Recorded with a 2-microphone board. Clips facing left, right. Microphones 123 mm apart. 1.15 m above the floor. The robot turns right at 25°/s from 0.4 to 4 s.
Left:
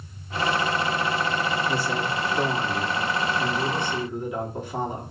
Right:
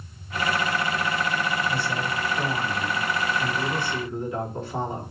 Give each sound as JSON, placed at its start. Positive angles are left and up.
{"t": 1.7, "sound": "a man speaking", "azimuth_deg": 110, "distance_m": 3.0}